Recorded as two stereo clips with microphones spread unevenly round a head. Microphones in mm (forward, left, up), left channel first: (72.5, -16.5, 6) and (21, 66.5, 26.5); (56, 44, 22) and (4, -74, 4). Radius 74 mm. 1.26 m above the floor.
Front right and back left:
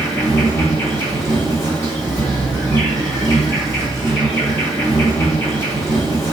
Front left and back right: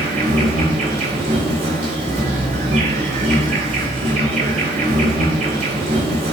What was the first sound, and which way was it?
An insect, 140° right.